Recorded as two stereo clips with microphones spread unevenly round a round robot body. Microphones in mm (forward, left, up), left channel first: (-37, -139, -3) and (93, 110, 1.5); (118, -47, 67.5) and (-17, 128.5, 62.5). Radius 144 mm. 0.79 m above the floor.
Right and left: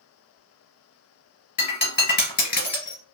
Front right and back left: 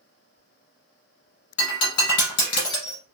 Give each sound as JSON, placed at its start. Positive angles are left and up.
{"t": 1.6, "sound": "breaking glass", "azimuth_deg": -60, "distance_m": 1.6}